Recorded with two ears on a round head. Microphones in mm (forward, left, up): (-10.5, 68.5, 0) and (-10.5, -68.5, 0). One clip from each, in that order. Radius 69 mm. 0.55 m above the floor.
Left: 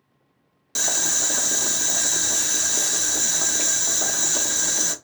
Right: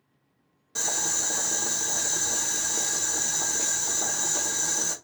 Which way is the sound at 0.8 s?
55° left (ahead or behind).